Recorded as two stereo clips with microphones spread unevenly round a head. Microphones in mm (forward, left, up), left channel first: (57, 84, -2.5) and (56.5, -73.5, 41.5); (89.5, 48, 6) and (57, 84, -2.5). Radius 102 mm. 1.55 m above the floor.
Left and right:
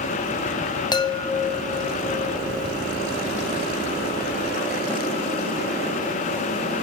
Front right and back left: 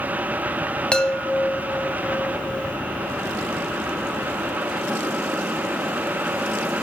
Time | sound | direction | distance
0.9 | a chime | 20° left | 0.8 m